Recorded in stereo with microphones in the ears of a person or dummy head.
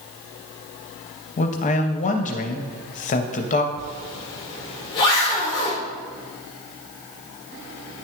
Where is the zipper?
25° left (ahead or behind), 3 m.